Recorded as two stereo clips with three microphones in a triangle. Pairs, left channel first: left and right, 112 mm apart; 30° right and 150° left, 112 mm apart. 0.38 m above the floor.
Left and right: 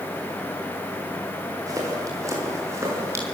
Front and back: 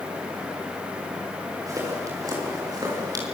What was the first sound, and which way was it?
Footsteps, 150° right.